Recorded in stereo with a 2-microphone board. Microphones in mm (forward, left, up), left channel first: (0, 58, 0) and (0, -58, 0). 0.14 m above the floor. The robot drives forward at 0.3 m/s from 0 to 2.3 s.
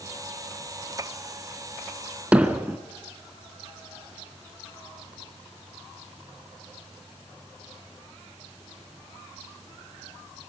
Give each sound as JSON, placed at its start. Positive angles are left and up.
{"t": 2.3, "sound": "hammering", "side_deg": -10, "distance_m": 1.3}